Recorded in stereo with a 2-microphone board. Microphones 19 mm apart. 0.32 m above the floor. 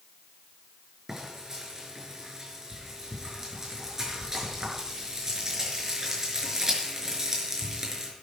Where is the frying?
25° right (ahead or behind), 5.5 m.